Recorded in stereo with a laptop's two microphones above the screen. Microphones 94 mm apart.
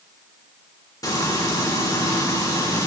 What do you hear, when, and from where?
1.0 s frying: 45° left (ahead or behind), 1.9 m